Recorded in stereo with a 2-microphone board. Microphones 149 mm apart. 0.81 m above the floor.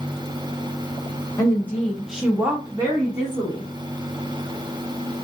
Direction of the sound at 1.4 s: 20° left (ahead or behind).